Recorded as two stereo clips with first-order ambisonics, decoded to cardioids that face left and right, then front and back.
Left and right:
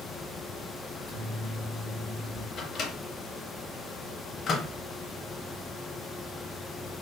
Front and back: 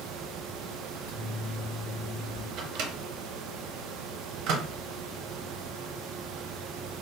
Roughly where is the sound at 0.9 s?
Ahead left.